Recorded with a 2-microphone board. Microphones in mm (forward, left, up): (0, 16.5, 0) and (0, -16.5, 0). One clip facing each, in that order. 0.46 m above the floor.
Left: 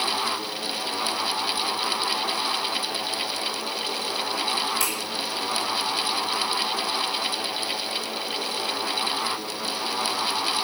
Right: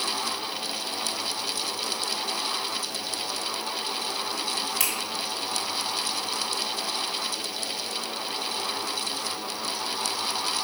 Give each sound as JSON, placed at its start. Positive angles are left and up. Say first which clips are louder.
{"t": 4.8, "sound": "a finger snap", "louder": "left 2 dB", "side_deg": -75, "distance_m": 2.5}